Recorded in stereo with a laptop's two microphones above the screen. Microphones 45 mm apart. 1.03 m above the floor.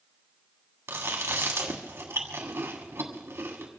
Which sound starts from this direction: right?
Chewing, at 0.9 s.